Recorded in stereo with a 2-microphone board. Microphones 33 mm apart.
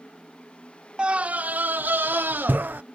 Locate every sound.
1.0 s a scream: 30° right (ahead or behind); by 2.8 s 85° right